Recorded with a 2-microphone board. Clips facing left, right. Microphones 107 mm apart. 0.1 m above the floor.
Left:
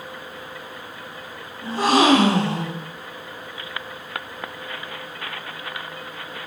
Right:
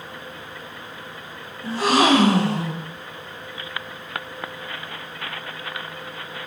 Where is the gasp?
45° left (ahead or behind), 4.5 m.